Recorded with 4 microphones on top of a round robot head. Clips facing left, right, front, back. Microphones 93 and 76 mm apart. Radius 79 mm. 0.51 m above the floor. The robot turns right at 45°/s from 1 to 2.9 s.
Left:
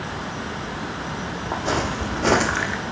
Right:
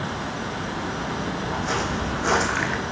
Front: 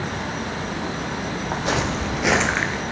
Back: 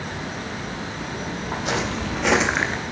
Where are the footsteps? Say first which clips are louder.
Left 4 dB, front 2 dB; 40° left, 1.6 m; by 2.8 s 155° right, 0.5 m.